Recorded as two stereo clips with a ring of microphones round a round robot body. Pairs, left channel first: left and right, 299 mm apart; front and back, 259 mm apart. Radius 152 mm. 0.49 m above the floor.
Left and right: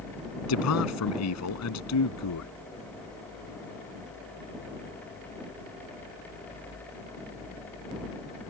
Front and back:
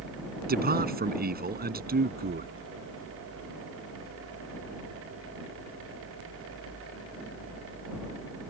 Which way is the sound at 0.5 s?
125° left.